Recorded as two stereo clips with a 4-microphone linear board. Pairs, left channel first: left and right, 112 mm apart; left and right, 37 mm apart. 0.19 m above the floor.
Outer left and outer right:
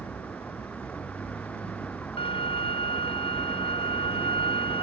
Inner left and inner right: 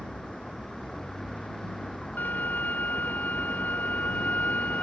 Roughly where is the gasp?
I don't hear a gasp.